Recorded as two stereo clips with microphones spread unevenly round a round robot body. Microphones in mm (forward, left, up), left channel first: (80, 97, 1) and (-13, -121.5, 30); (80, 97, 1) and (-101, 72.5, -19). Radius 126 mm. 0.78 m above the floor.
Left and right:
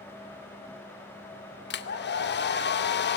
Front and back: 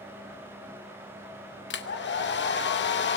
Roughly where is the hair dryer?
Ahead left.